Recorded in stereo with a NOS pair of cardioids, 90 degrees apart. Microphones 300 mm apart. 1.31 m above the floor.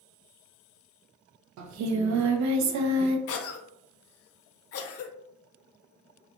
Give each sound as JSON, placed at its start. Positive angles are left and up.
{"t": 1.6, "sound": "singing", "azimuth_deg": -65, "distance_m": 0.5}
{"t": 3.3, "sound": "a cough", "azimuth_deg": 50, "distance_m": 0.6}